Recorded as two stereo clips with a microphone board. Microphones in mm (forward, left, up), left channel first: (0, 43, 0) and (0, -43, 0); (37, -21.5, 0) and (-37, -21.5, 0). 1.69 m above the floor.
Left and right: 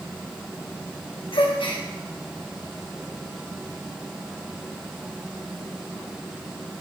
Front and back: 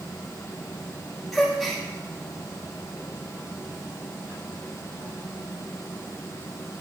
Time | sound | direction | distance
1.3 | a gasp | 90° left | 1.7 m